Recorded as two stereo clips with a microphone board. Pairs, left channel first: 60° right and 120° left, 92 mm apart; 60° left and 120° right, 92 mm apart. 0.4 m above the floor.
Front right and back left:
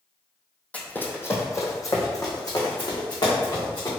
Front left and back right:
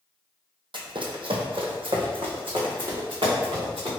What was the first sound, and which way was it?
Running footsteps, 135° right.